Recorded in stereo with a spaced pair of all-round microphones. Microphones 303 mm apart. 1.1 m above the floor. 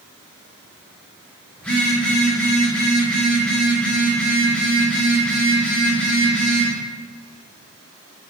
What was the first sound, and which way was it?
A phone buzzing, 5° left (ahead or behind).